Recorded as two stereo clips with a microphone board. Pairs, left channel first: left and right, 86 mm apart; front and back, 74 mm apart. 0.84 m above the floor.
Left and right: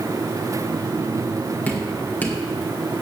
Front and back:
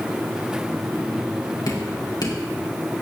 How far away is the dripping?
About 2 m.